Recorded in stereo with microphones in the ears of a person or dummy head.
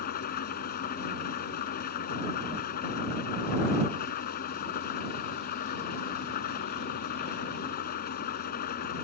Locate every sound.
0.0 s an engine running: 50° left (ahead or behind)